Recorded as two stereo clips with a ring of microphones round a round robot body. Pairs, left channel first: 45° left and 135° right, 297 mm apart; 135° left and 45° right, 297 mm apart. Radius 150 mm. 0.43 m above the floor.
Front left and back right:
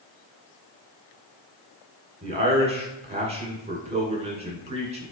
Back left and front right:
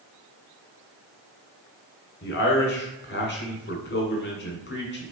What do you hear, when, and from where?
2.2 s a man speaking: 165° left, 1.3 m